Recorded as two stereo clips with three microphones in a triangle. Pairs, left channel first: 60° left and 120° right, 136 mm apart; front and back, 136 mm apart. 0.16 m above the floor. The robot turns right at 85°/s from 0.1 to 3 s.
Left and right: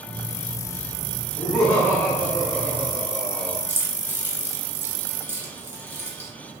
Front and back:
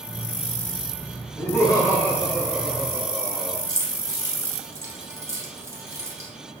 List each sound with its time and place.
1.4 s laughter: 25° right, 1.2 m; by 3.6 s 115° left, 1.2 m
3.7 s keys jangling: 160° right, 0.7 m